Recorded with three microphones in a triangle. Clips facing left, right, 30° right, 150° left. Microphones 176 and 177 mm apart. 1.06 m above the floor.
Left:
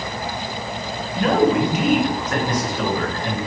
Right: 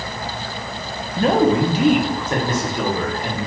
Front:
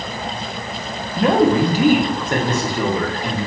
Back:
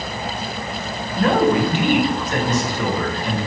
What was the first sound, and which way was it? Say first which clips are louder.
A man speaking: right 1 dB, front 2 dB; 95° right.